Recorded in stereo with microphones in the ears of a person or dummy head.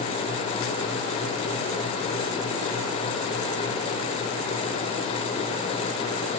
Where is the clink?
No clink in this recording.